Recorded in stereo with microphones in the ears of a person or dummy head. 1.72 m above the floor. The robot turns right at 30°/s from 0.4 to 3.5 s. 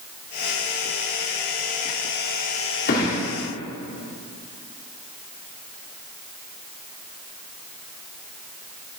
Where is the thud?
50° left (ahead or behind), 2 m; by 3.2 s 55° left (ahead or behind), 2 m.